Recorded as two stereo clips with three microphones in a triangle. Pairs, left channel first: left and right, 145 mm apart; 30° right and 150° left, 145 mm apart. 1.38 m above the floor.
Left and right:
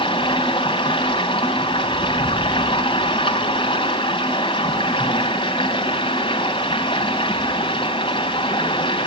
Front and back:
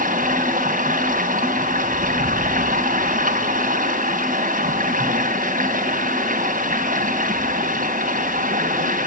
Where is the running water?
145° left, 3 m.